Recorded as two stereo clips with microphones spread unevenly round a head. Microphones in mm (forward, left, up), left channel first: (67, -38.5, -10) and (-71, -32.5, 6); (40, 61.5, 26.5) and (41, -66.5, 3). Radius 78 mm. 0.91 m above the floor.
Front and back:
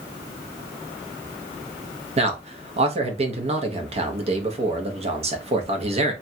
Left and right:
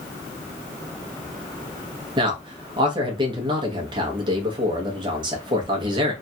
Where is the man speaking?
140° right, 0.8 m.